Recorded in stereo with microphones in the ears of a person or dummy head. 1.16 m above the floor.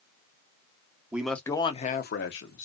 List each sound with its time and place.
1.1 s a man speaking: 10° right (ahead or behind), 0.6 m; by 2.6 s 65° left (ahead or behind), 0.8 m